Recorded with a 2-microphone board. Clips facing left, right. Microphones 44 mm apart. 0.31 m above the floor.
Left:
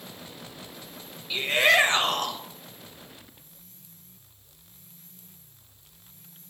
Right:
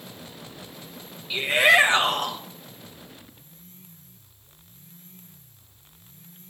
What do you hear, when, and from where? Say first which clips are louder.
1.3 s a shout: right 3 dB; 5° right (ahead or behind), 0.9 m